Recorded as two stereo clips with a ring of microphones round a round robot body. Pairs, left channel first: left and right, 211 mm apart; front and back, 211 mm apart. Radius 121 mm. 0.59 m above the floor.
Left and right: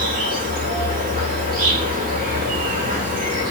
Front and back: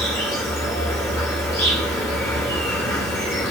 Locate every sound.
0.0 s an insect: 70° right, 1.9 m